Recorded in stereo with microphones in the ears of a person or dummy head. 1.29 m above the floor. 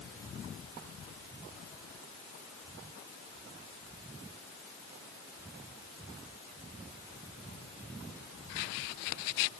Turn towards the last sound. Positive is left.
No sound to turn to.